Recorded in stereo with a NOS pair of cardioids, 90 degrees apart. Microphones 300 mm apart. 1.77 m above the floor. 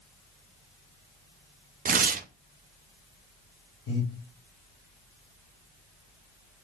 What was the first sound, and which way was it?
Tearing paper, 30° right.